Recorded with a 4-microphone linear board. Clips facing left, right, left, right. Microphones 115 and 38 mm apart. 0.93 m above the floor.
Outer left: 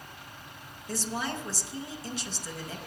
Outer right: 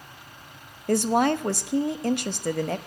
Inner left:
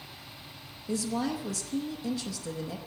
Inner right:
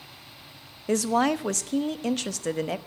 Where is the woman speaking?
60° right (ahead or behind), 0.7 m.